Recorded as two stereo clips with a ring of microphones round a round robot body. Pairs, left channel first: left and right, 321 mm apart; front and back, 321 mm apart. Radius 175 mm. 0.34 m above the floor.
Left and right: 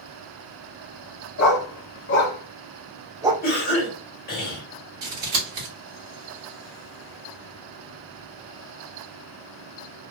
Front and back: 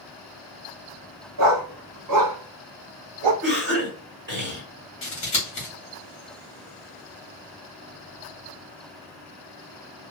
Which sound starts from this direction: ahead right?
Scissors, at 5.0 s.